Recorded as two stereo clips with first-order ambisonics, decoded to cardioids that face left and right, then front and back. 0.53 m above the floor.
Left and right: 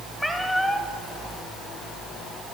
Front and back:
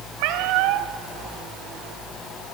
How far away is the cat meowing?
About 2.0 m.